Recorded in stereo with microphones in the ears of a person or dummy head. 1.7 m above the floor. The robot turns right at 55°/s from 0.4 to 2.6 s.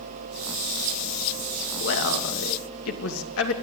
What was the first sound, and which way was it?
A man speaking, 60° left.